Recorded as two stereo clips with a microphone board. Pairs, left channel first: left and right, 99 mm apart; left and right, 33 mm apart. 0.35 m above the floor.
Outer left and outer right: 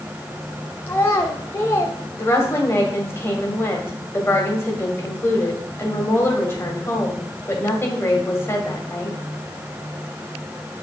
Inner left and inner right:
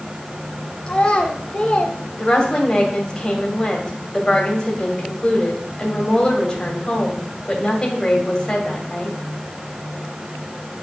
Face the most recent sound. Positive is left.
turn(degrees=25)  # may be behind; listen again after turning